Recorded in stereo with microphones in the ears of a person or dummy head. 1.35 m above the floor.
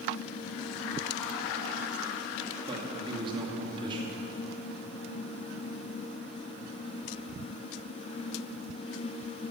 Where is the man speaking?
30° right (ahead or behind), 2 m.